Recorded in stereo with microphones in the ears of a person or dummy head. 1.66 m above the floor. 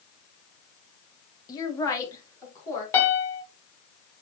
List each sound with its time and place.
1.5 s a woman speaking: 20° left (ahead or behind), 1.0 m; by 2.8 s 15° left (ahead or behind), 3 m
2.9 s a piano: 15° left (ahead or behind), 1.0 m